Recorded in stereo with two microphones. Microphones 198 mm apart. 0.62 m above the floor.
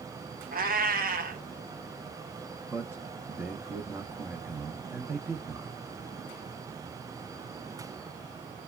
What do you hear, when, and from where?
0.5 s a cat meowing: 50° right (ahead or behind), 0.8 m
2.7 s a man speaking: 10° right (ahead or behind), 0.6 m